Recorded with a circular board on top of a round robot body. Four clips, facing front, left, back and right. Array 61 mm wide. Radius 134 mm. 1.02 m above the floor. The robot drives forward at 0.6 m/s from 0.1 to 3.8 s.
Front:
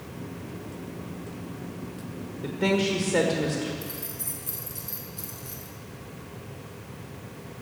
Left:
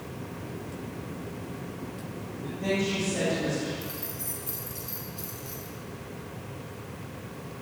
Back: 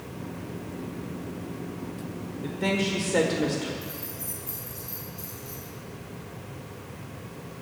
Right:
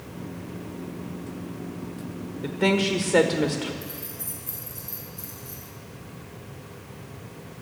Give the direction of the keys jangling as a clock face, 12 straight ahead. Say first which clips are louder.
Left 1 dB, even; 11 o'clock.